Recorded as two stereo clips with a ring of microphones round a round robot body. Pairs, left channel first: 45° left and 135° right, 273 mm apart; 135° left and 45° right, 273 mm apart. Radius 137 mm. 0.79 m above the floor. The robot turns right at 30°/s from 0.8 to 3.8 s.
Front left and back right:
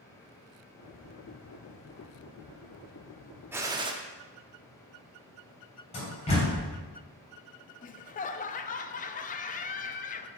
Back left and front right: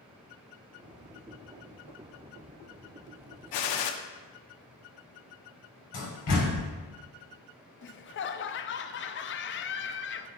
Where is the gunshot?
140° left, 0.7 m; by 3.9 s 150° left, 0.7 m.